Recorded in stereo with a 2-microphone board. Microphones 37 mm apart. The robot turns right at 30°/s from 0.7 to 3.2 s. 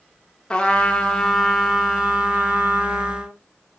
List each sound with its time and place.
0.5 s a trumpet: 160° left, 1.7 m; by 3.4 s 125° right, 1.7 m